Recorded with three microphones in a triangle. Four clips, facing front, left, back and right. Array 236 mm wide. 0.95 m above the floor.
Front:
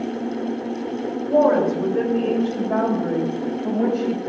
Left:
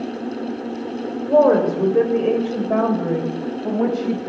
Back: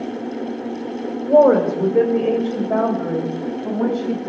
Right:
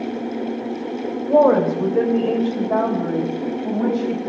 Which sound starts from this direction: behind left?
A woman speaking, at 1.3 s.